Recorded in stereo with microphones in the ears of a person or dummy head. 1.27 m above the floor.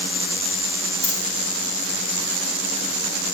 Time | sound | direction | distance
1.0 | a dropped coin | 50° left (ahead or behind) | 5 m